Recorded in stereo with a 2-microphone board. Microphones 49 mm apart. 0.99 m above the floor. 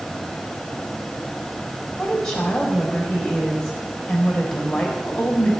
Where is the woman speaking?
15° left (ahead or behind), 4 m.